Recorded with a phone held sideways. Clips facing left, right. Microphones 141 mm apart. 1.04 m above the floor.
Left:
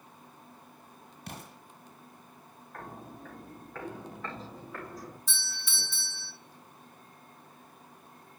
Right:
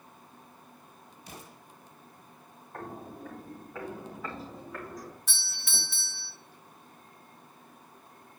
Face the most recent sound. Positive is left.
turn(degrees=-70)  # may be behind; listen again after turning